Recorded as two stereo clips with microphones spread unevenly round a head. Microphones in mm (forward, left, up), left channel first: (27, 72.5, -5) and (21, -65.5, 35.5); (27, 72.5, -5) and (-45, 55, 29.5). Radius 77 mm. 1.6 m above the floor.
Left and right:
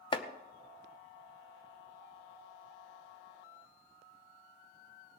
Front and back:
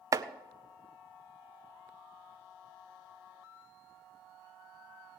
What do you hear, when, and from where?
0.1 s chopping: 140° left, 0.7 m